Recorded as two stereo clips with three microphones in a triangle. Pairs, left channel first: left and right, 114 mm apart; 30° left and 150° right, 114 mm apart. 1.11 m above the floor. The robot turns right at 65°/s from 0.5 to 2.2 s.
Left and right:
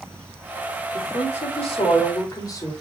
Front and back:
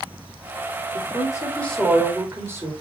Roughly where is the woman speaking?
Ahead left.